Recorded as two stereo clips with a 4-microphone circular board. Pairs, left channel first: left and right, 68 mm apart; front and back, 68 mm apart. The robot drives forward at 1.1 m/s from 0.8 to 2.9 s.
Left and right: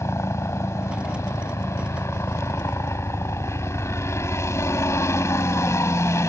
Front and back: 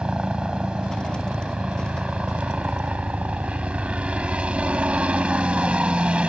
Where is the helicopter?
110° left; by 6.3 s 115° left.